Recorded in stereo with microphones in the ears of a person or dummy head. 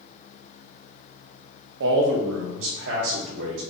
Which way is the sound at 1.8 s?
65° right (ahead or behind).